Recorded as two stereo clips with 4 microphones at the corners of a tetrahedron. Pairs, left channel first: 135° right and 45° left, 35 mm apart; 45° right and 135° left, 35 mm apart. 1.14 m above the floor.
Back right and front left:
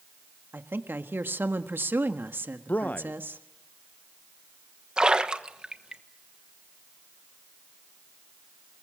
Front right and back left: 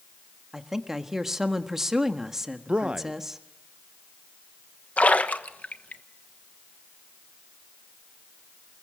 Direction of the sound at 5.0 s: 15° right.